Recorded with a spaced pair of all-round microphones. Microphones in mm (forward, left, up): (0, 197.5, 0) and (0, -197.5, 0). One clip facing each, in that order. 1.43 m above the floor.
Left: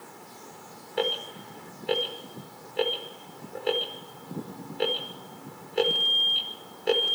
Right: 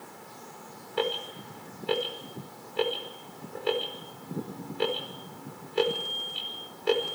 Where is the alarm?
15° right (ahead or behind), 5 m.